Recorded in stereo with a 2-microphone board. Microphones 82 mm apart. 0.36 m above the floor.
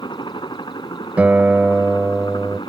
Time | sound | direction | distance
0.0 | a helicopter | 70° left (ahead or behind) | ?
1.2 | a guitar | 20° right (ahead or behind) | ?